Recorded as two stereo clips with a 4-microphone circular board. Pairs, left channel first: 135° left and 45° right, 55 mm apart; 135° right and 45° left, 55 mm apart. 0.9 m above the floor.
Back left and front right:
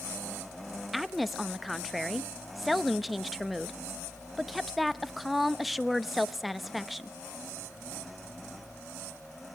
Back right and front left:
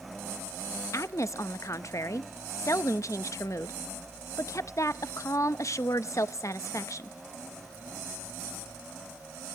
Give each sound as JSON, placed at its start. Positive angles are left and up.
{"t": 0.9, "sound": "a woman speaking", "azimuth_deg": -135, "distance_m": 0.6}